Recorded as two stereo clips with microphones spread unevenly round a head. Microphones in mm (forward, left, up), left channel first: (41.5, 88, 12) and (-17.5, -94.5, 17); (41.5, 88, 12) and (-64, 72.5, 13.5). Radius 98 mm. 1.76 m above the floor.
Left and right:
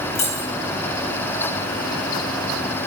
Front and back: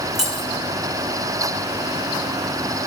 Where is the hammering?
No hammering in this recording.